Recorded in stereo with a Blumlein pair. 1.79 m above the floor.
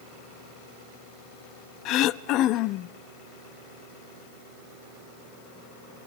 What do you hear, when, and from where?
1.9 s throat clearing: 35° left, 0.6 m